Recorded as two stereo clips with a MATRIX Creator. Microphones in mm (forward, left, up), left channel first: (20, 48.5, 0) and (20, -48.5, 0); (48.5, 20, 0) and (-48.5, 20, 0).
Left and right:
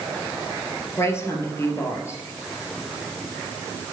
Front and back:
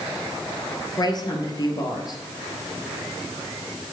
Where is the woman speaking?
35° left, 2.5 m.